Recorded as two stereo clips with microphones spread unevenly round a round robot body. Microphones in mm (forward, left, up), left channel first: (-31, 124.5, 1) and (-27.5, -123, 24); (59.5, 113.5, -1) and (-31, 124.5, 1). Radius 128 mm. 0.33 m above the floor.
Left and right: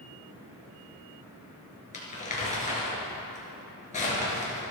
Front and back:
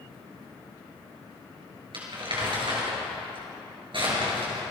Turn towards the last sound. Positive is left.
turn(degrees=150)